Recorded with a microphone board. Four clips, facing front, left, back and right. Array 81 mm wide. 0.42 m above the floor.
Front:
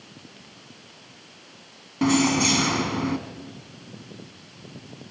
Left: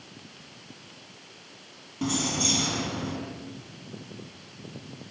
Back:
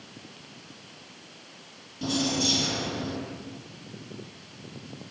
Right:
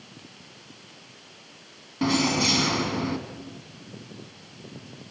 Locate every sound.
2.0 s keys jangling: 25° right, 2.5 m